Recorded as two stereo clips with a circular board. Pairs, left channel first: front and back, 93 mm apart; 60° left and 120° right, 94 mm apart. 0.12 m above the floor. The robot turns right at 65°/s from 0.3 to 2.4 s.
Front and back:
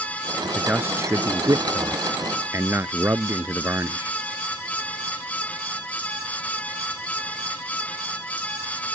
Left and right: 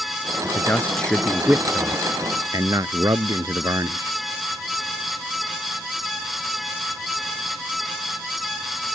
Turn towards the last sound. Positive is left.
turn(degrees=-135)